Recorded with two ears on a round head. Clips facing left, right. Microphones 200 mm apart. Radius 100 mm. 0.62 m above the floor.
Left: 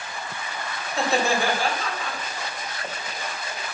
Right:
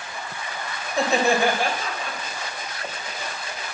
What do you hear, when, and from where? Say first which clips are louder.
0.9 s laughter: right 3 dB; 15° right (ahead or behind), 3.5 m